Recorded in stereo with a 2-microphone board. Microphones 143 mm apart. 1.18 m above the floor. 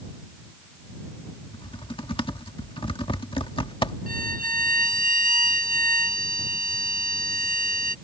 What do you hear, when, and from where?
1.5 s typing on a keyboard: 35° left (ahead or behind)
4.1 s a violin: 75° right (ahead or behind)